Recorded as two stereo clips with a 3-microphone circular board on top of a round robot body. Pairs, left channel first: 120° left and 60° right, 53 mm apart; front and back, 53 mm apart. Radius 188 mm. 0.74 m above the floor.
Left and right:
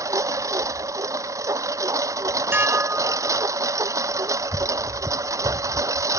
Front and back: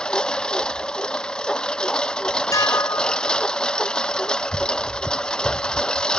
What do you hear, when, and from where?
0.0 s a lawn mower: 75° right
2.5 s dishes clattering: 10° right